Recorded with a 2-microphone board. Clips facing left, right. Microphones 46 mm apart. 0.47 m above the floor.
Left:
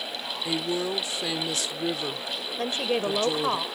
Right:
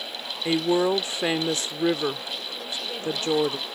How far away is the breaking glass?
No breaking glass in this recording.